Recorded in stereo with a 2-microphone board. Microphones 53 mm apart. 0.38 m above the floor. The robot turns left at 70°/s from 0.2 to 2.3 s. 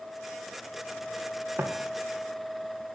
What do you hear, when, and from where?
1.6 s footsteps: 45° right (ahead or behind), 1.7 m; by 1.7 s 40° right (ahead or behind), 1.7 m